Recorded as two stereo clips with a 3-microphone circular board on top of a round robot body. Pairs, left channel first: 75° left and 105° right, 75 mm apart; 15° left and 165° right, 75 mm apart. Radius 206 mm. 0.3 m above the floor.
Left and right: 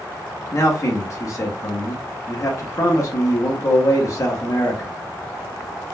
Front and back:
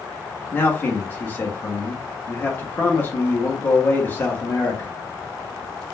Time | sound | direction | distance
0.5 | a man speaking | 65° left | 1.1 m